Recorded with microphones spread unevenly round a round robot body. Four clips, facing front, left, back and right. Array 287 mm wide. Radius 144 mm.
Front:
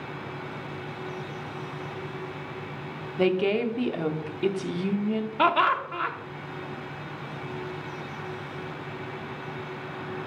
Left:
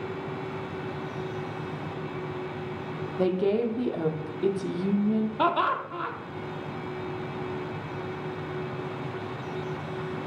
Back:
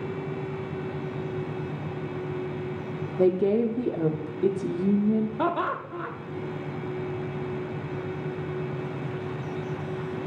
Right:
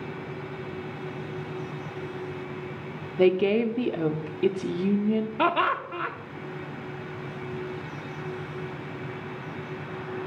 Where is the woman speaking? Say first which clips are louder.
Right 4 dB, back 2 dB; 135° right, 0.7 m.